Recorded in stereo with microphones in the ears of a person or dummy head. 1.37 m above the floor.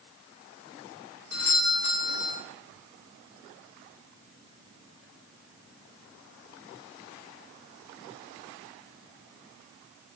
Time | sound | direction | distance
1.3 | a doorbell | 70° left (ahead or behind) | 4.5 m